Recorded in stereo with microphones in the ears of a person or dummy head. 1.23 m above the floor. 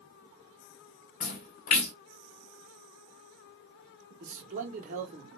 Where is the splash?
45° left (ahead or behind), 1.3 m.